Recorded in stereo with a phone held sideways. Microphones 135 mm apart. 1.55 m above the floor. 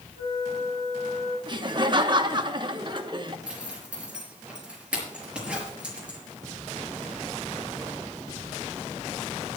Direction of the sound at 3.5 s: 10° right (ahead or behind).